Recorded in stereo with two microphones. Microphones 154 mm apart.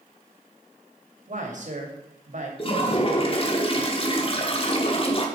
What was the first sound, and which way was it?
A man speaking, 50° right (ahead or behind).